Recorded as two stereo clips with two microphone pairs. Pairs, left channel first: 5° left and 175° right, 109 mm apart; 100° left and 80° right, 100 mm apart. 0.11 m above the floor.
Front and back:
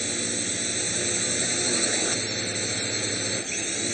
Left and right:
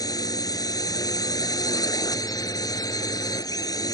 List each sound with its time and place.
0.0 s a drone: 90° left